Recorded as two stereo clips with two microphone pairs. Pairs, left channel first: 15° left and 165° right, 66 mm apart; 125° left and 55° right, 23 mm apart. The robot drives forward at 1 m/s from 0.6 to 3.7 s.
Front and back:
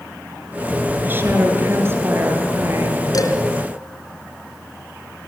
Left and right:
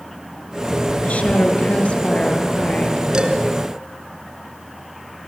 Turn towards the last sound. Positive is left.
turn(degrees=-5)